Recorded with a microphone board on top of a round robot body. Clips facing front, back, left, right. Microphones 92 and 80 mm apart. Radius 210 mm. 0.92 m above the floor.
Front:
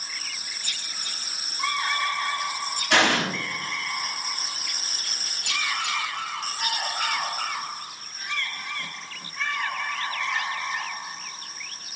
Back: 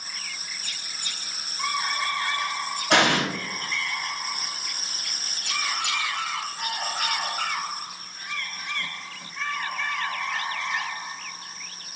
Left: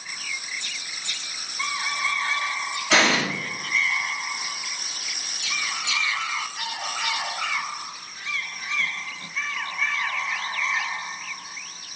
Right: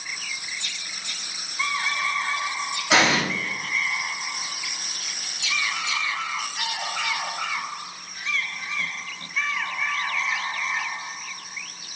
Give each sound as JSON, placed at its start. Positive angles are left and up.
{"t": 2.9, "sound": "an explosion", "azimuth_deg": -165, "distance_m": 1.3}